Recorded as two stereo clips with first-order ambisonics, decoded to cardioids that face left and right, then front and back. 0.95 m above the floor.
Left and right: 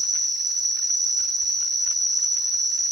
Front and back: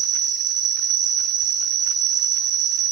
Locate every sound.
0.0 s an insect: 160° right, 0.9 m